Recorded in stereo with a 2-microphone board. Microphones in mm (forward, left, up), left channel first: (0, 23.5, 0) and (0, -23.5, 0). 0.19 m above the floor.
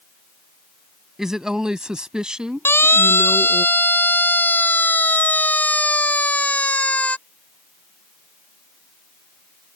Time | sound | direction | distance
1.2 | a woman speaking | 10° right (ahead or behind) | ?
2.6 | a siren | 60° left (ahead or behind) | ?